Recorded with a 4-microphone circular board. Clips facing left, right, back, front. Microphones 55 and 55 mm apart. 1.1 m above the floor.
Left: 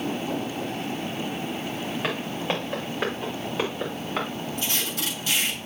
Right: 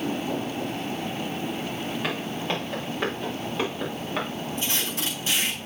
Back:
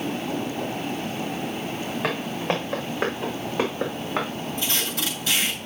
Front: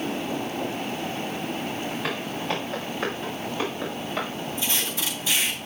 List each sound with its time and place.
2.0 s footsteps: 160° left, 5.5 m; by 4.3 s 175° left, 6.5 m
4.6 s tape being pulled: 150° right, 7.5 m